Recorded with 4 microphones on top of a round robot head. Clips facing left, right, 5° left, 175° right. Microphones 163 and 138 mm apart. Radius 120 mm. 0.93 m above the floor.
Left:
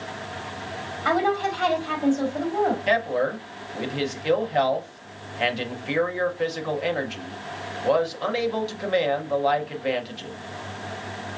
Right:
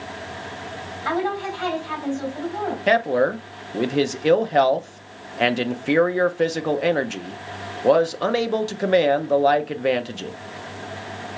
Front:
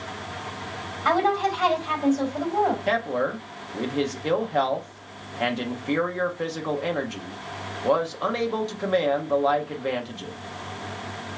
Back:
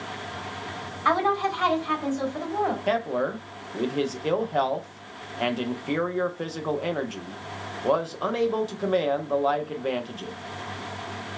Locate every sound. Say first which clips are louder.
1.1 s a woman speaking: left 2 dB, front 2 dB; 80° left, 2.5 m
2.9 s a man speaking: right 4 dB, even; 95° right, 0.6 m